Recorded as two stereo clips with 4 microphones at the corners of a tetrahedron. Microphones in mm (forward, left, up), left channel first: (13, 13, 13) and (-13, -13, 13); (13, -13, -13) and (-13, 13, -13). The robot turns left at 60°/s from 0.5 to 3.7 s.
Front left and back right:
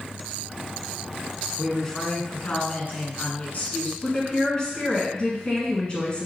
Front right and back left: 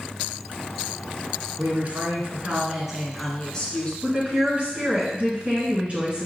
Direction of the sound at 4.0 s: 105° left.